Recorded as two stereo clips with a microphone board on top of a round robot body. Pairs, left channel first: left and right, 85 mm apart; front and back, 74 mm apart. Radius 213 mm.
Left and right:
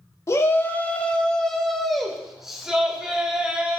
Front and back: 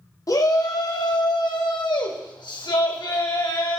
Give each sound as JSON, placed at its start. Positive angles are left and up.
{"t": 0.3, "sound": "a shout", "azimuth_deg": 35, "distance_m": 1.9}